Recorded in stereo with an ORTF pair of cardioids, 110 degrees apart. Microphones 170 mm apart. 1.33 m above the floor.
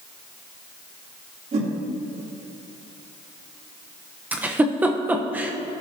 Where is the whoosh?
40° right, 3 m.